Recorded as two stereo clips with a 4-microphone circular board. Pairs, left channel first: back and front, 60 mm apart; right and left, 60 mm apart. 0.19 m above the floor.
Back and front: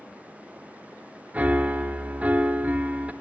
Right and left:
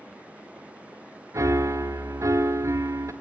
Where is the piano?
65° left, 0.5 m.